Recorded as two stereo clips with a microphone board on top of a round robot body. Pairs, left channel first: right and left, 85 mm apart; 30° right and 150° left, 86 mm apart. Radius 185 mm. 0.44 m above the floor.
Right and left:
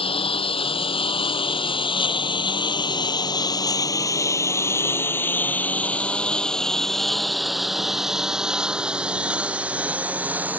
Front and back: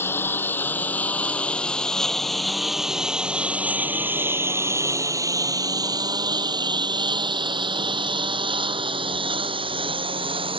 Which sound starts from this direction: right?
A lawn mower, at 0.0 s.